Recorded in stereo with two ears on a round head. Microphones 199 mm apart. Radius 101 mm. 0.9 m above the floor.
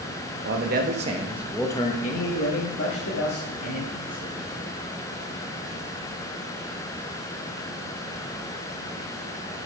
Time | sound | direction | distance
0.5 | a man speaking | 50° right (ahead or behind) | 1.1 m